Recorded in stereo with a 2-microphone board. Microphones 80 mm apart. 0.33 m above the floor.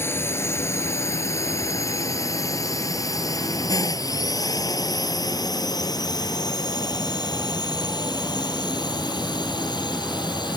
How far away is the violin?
No violin in this recording.